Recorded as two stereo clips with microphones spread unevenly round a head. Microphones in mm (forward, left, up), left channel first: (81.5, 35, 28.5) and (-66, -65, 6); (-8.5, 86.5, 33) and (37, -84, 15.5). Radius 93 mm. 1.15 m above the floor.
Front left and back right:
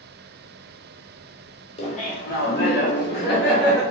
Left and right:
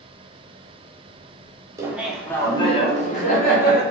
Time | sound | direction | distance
1.8 | laughter | 20° right | 0.7 m